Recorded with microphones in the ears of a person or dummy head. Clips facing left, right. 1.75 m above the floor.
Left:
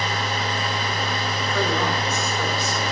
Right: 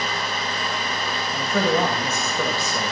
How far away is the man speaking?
About 1.9 m.